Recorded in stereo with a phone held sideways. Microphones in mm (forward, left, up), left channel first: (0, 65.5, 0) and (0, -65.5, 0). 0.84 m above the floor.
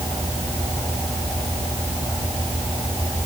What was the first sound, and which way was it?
Only background noise.